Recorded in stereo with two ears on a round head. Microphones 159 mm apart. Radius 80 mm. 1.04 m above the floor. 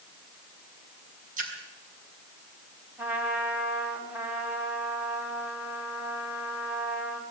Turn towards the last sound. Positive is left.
turn(degrees=-10)  # may be behind; listen again after turning